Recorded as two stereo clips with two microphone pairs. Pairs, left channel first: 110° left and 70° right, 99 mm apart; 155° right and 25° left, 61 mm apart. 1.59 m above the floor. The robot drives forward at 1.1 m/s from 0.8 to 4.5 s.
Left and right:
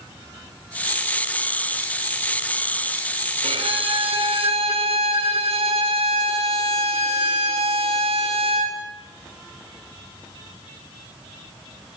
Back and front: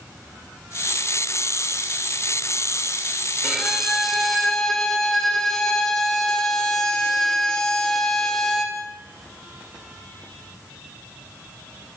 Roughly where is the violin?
Ahead right.